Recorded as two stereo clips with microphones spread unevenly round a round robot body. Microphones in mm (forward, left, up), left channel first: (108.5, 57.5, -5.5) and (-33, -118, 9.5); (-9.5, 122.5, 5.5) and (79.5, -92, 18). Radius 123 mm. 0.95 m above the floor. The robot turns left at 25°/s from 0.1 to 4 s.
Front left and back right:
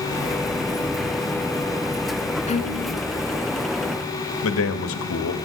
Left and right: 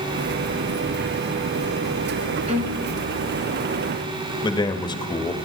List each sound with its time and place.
2.5 s a violin: 10° right, 1.7 m; by 2.9 s 20° right, 1.7 m
4.4 s a man speaking: 45° left, 1.6 m